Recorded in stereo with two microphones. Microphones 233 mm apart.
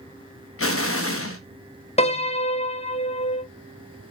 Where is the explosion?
70° left (ahead or behind), 0.7 m.